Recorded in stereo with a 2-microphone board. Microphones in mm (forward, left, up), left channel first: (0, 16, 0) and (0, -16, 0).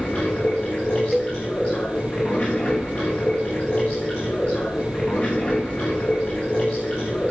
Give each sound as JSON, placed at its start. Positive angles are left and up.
{"t": 0.0, "sound": "running water", "side_deg": 35, "distance_m": 7.5}
{"t": 1.1, "sound": "a cowbell", "side_deg": 5, "distance_m": 0.8}